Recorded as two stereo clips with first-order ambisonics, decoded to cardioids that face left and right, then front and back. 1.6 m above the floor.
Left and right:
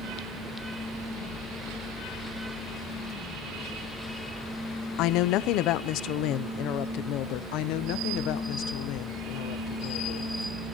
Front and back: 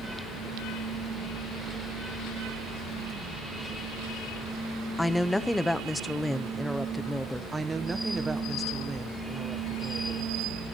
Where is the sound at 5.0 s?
85° left, 0.5 m.